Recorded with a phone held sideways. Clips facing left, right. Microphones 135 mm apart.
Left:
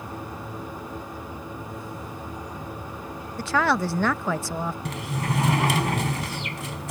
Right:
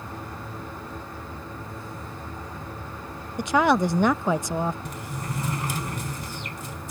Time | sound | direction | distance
0.0 | a machine running | 15° left (ahead or behind) | ?
3.4 | a woman speaking | 20° right (ahead or behind) | ?
4.8 | a sliding door | 85° left | ?